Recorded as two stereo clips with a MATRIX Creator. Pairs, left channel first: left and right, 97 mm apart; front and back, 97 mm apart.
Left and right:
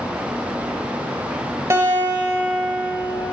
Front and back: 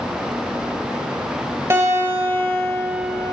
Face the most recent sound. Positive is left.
turn(degrees=-135)